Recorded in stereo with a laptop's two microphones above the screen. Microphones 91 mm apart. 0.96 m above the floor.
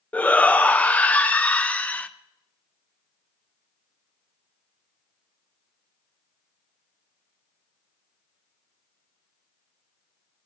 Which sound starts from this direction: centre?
A shout, at 0.1 s.